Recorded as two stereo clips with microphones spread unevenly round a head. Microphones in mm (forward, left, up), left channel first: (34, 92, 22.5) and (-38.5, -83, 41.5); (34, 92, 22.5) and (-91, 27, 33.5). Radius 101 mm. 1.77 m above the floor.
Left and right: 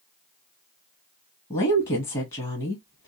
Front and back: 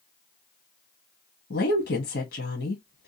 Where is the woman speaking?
Straight ahead, 0.8 m.